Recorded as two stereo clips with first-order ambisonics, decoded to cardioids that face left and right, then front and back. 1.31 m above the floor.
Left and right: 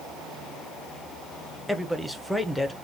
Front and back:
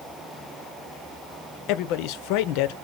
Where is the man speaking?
5° left, 0.8 m.